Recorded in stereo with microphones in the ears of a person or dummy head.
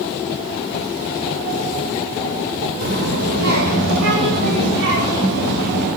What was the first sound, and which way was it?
A child speaking, 60° right (ahead or behind).